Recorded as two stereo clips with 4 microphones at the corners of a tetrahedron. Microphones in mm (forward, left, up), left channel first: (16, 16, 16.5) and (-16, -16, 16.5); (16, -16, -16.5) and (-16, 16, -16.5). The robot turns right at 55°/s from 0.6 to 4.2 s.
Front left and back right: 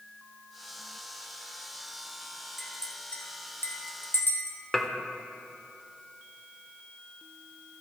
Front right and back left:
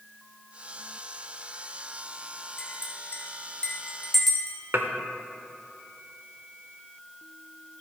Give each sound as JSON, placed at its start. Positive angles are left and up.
{"t": 2.6, "sound": "a clink", "azimuth_deg": -45, "distance_m": 1.2}
{"t": 4.7, "sound": "dishes clattering", "azimuth_deg": 130, "distance_m": 0.7}